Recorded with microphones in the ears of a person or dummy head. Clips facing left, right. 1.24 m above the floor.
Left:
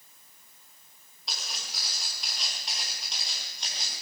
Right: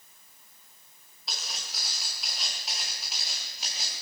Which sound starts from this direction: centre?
Footsteps, at 1.3 s.